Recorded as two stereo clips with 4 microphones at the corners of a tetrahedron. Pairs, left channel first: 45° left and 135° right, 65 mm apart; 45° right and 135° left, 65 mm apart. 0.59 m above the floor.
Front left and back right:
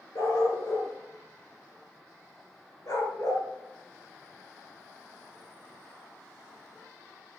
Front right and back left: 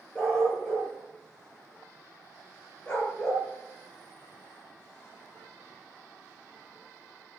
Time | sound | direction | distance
0.1 | a dog barking | 25° left | 5.5 m